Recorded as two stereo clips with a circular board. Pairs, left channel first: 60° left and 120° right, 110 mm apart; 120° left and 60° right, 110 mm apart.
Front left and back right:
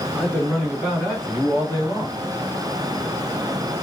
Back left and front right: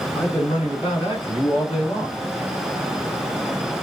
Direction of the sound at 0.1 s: 150° left.